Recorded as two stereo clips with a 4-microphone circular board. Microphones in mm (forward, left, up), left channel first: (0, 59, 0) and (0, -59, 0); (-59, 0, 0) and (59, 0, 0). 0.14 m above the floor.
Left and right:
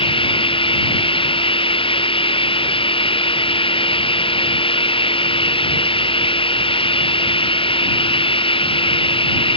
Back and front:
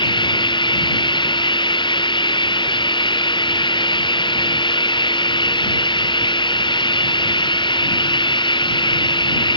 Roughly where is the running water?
Behind left.